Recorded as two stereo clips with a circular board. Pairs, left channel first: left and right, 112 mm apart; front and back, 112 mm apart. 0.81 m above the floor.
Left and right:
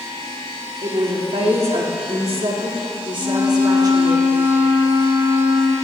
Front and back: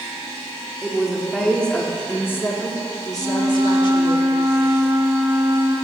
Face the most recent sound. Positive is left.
turn(degrees=-110)